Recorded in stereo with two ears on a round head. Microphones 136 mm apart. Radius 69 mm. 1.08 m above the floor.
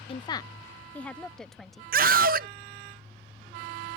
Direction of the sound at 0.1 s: 35° left (ahead or behind).